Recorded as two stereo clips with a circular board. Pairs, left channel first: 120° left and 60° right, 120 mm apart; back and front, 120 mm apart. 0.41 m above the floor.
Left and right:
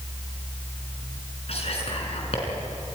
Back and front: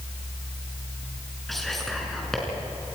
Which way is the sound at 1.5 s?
90° left.